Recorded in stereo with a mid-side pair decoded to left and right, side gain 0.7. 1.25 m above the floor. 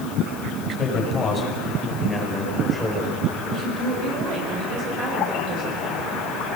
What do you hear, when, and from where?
0.7 s a man speaking: 35° left, 6.5 m; by 3.1 s straight ahead, 4.5 m
3.5 s a woman speaking: 50° right, 7 m